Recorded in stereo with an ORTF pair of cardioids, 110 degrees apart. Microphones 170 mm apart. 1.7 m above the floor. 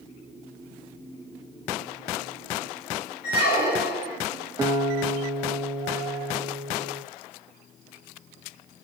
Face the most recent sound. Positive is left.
turn(degrees=-25)